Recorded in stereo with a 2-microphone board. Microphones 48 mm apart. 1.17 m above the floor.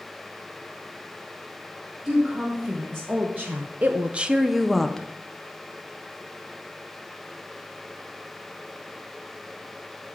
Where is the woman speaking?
35° right (ahead or behind), 1.9 m; by 5.1 s 10° left (ahead or behind), 0.9 m.